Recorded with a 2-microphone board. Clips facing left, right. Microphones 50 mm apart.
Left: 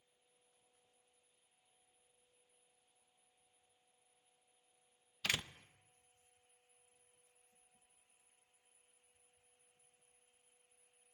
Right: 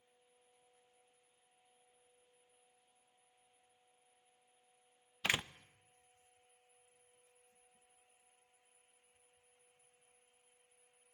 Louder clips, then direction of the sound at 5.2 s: Right 3 dB; 20° right (ahead or behind).